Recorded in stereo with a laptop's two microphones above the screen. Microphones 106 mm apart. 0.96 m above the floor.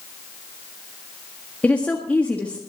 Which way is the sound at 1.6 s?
15° left (ahead or behind).